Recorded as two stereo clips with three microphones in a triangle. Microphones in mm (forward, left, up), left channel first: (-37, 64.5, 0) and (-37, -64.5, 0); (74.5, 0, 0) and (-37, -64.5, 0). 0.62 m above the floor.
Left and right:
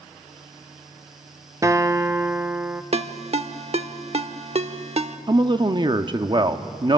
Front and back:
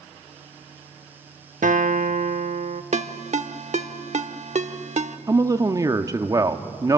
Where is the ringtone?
125° right, 0.9 m.